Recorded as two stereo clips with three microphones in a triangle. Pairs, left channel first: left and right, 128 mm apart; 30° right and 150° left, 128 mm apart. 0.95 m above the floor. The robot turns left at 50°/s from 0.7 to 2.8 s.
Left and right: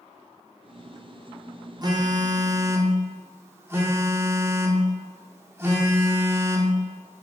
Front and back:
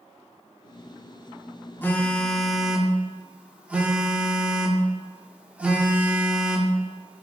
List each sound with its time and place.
1.8 s a phone buzzing: 90° right, 0.5 m; by 7.2 s 140° right, 0.5 m